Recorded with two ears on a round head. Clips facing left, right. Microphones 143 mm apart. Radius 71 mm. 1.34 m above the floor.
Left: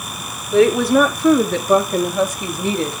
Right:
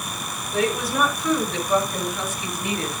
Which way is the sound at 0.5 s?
55° left (ahead or behind).